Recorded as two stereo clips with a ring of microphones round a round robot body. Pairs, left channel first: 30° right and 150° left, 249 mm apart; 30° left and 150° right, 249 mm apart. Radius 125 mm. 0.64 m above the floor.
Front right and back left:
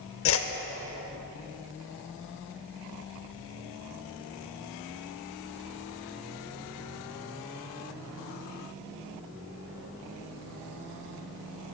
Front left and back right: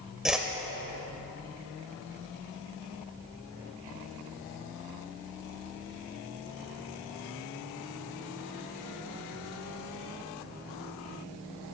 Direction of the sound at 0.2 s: 65° right.